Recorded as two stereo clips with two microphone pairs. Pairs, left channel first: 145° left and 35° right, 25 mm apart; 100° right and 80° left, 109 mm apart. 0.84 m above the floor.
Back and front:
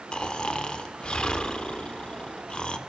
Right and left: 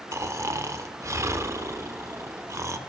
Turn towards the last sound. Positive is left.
turn(degrees=130)